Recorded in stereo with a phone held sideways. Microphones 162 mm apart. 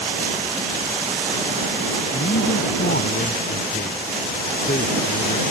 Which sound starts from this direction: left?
A man speaking, at 2.1 s.